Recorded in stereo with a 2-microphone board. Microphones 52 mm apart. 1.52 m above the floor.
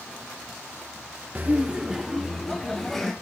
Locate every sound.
1.4 s laughter: 35° right (ahead or behind), 0.6 m; by 3.1 s 5° left (ahead or behind), 2 m